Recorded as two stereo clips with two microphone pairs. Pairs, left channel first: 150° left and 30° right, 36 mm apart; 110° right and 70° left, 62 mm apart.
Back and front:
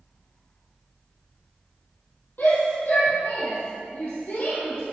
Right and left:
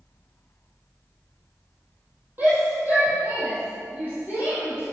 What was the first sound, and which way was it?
A shout, 130° left.